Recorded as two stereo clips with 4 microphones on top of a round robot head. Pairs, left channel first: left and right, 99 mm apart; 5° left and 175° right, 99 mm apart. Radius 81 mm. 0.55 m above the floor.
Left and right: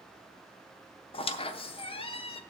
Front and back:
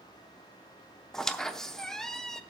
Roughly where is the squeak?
Left.